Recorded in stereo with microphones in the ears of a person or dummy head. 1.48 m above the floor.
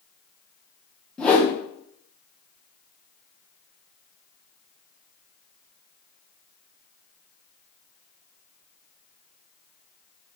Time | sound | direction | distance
1.2 | a whoosh | 5° left (ahead or behind) | 0.7 m